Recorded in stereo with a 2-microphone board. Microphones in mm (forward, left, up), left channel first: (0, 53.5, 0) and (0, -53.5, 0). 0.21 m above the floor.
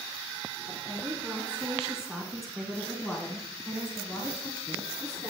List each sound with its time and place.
0.7 s a woman speaking: 20° right (ahead or behind), 2.5 m; by 5.3 s 40° left (ahead or behind), 2.5 m